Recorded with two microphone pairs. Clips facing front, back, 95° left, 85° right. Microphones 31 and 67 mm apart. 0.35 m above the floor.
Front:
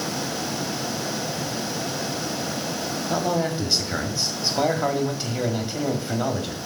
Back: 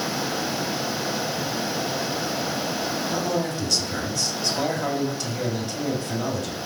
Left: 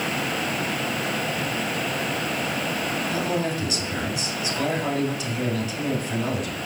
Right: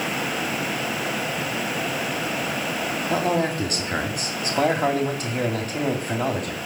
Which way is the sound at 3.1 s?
60° right.